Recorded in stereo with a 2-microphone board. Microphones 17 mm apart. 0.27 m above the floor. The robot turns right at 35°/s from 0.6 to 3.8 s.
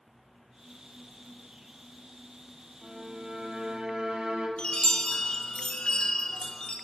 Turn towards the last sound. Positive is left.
turn(degrees=75)  # may be behind; listen again after turning